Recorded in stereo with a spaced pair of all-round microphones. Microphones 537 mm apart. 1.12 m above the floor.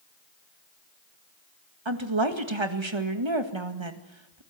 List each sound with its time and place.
1.9 s a woman speaking: 60° right (ahead or behind), 1.9 m